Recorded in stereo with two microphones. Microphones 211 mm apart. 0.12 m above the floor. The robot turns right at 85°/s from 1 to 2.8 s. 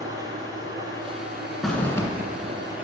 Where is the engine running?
160° right, 2 m; by 2.8 s 5° right, 2 m.